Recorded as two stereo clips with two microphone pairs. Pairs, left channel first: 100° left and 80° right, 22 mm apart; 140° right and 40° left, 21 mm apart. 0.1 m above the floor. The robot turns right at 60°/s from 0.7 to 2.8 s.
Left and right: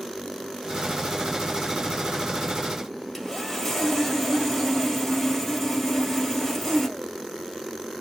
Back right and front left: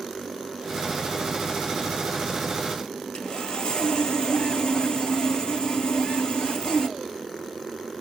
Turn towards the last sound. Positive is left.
turn(degrees=-165)